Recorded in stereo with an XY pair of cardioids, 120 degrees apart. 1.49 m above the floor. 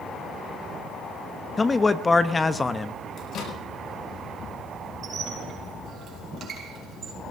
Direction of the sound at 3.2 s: 60° left.